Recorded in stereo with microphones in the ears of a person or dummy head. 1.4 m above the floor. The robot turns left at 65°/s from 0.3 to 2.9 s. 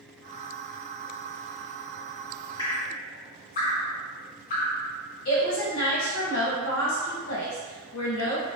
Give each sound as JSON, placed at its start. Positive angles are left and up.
{"t": 2.6, "sound": "dripping", "side_deg": 30, "distance_m": 1.0}
{"t": 5.2, "sound": "a woman speaking", "side_deg": 75, "distance_m": 1.2}